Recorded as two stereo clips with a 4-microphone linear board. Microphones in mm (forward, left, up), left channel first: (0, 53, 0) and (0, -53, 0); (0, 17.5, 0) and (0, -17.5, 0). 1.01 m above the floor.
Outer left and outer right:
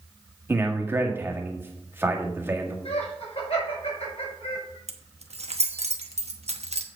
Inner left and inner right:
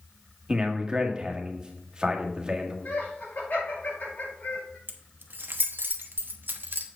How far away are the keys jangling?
About 1.0 m.